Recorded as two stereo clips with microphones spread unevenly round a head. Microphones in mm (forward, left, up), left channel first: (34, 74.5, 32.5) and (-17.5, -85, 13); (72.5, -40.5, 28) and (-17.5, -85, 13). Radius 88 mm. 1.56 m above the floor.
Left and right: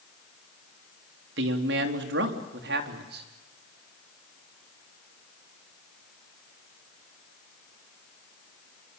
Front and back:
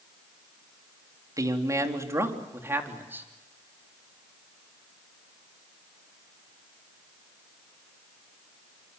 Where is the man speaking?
95° right, 3.5 m; by 3.3 s 80° right, 3.5 m.